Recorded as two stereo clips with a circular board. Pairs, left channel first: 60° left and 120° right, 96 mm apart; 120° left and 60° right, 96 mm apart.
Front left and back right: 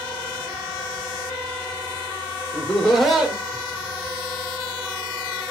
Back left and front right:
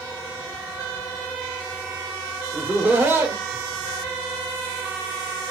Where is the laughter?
5° left, 1.0 m; by 5.5 s 85° right, 2 m.